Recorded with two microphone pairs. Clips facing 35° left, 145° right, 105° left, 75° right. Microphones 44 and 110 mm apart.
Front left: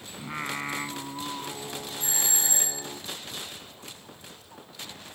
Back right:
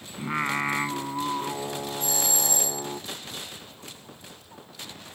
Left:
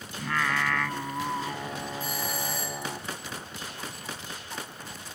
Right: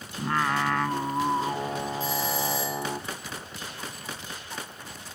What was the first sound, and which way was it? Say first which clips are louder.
Singing: back right 6 dB, right 3 dB; 105° right.